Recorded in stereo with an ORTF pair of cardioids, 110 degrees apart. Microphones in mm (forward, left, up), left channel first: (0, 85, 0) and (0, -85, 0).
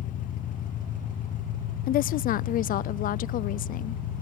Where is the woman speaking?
55° left, 0.6 m.